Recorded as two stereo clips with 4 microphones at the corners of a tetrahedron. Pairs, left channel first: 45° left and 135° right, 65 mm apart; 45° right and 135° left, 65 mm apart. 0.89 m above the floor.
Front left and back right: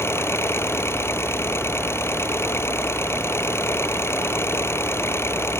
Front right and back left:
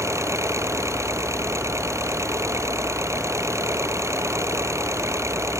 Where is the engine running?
95° left.